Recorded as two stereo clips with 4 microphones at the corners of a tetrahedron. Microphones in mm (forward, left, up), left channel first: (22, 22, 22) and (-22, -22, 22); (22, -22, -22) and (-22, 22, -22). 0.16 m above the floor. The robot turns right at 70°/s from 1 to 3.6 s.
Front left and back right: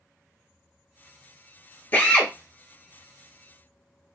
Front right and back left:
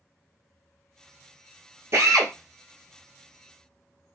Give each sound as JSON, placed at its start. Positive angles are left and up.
{"t": 1.9, "sound": "a drill", "azimuth_deg": 95, "distance_m": 1.3}